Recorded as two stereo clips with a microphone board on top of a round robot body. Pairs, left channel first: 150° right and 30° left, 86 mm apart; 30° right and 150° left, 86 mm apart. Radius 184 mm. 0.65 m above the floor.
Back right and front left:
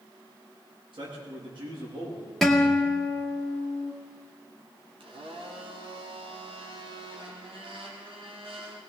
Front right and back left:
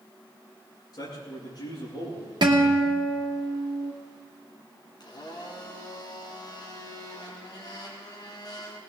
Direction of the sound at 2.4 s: 125° left.